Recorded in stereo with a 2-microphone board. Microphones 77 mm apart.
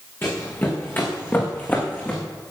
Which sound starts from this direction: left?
Running footsteps, at 0.2 s.